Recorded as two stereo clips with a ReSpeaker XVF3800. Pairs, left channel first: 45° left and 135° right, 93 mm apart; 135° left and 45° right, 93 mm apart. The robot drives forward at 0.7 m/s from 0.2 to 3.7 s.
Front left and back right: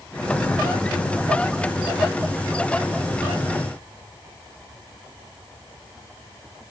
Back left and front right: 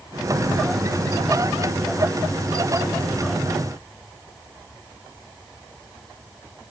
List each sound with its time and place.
Only background noise.